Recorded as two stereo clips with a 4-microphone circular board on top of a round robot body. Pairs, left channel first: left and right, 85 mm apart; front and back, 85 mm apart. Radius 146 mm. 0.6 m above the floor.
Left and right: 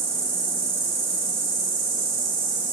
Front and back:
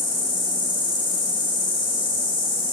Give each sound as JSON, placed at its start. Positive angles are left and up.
{"t": 0.0, "sound": "an insect", "azimuth_deg": -30, "distance_m": 2.0}